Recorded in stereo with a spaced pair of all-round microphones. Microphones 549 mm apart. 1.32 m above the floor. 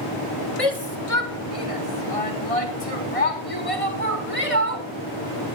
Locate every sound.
0.6 s a shout: 80° left, 1.9 m; by 4.9 s 75° left (ahead or behind), 4.5 m